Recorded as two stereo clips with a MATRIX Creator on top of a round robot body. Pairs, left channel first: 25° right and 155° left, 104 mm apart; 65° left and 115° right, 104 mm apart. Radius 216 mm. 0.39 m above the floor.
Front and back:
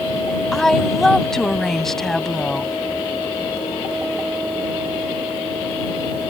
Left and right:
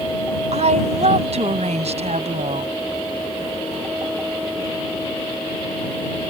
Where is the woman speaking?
110° right.